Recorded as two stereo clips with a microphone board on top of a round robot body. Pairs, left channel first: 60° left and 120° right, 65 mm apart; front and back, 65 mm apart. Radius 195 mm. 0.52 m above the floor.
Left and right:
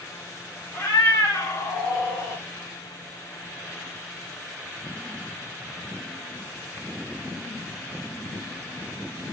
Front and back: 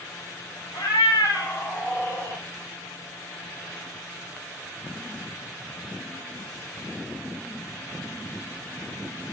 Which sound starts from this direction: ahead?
A cat meowing, at 0.7 s.